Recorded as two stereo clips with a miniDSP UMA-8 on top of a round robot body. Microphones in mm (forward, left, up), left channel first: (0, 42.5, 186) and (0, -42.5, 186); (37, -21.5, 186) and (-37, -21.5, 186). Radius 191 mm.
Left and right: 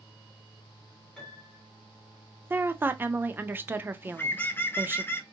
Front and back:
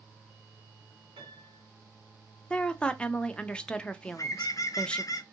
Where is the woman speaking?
60° right, 0.7 m.